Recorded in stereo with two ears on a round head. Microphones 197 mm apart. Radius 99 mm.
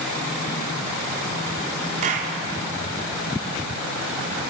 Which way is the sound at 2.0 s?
35° right (ahead or behind).